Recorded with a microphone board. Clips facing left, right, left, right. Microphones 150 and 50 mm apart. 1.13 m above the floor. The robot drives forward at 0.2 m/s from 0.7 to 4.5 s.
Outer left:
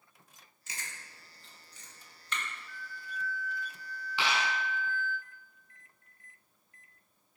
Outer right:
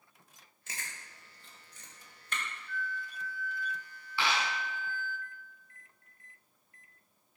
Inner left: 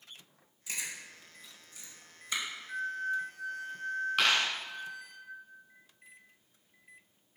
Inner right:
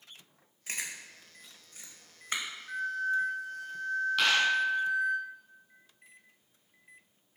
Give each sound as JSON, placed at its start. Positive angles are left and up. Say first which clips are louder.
{"t": 0.7, "sound": "chewing", "louder": "even, inner right 1 dB", "side_deg": -50, "distance_m": 1.6}
{"t": 2.7, "sound": "a flute", "louder": "outer right 5 dB, inner right 3 dB", "side_deg": -55, "distance_m": 0.9}
{"t": 4.2, "sound": "a dropped coin", "louder": "even, inner right 1 dB", "side_deg": 20, "distance_m": 4.0}